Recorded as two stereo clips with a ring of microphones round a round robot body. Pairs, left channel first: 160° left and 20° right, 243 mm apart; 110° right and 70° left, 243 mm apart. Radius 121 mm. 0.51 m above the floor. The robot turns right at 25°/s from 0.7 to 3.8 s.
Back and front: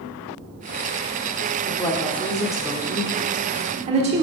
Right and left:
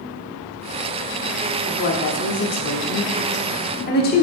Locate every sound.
1.7 s a woman speaking: 130° right, 1.1 m; by 4.2 s 80° right, 1.1 m